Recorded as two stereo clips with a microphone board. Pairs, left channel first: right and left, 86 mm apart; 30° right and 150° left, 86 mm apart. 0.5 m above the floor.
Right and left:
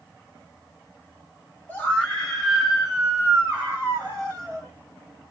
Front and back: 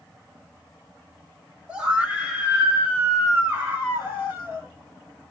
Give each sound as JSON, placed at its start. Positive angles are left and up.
{"t": 1.7, "sound": "a scream", "azimuth_deg": -145, "distance_m": 1.4}